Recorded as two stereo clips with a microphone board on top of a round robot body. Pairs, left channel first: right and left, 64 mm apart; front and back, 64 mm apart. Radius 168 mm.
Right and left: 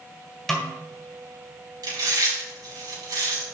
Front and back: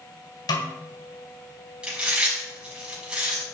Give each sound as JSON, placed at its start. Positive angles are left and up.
{"t": 0.5, "sound": "a snare drum", "azimuth_deg": -5, "distance_m": 1.3}
{"t": 1.8, "sound": "chewing", "azimuth_deg": 105, "distance_m": 5.0}